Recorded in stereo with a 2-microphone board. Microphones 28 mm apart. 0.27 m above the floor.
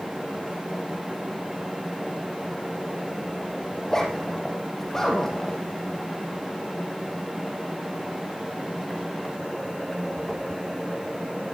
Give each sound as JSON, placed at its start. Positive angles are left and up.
{"t": 3.8, "sound": "a zipper", "side_deg": 15, "distance_m": 5.5}